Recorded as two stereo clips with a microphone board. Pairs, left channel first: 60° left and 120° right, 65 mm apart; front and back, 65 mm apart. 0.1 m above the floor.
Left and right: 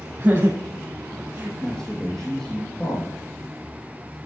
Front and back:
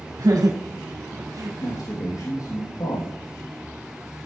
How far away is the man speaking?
About 5.5 m.